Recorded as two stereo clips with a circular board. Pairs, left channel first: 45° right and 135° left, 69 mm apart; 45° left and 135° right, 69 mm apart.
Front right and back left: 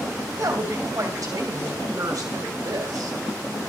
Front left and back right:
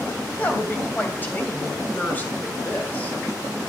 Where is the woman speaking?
105° left, 2.5 m.